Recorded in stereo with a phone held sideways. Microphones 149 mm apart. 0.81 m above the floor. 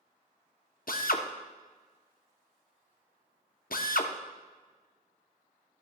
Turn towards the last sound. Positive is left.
turn(degrees=75)  # may be behind; listen again after turning